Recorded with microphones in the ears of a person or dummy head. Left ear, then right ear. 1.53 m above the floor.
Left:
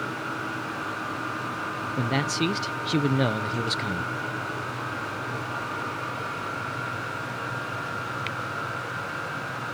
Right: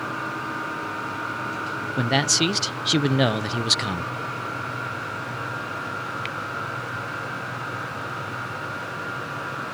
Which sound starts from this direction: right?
A man speaking, at 2.0 s.